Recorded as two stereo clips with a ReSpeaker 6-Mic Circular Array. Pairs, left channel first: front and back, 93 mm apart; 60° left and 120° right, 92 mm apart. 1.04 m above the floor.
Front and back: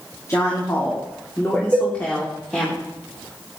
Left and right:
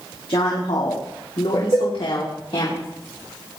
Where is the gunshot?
I don't hear a gunshot.